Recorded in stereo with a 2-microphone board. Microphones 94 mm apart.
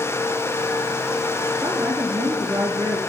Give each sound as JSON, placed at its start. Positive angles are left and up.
{"t": 1.6, "sound": "a woman speaking", "side_deg": -25, "distance_m": 2.0}